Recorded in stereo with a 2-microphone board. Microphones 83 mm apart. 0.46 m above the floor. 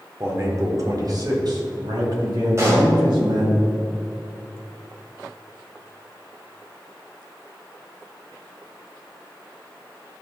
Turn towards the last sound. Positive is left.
turn(degrees=-35)  # may be behind; listen again after turning